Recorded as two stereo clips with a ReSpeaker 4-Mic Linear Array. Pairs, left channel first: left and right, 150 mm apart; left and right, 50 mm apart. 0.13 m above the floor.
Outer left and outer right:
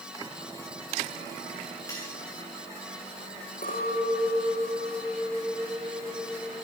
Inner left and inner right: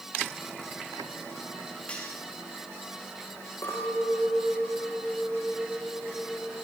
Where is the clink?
70° left (ahead or behind), 8.5 m.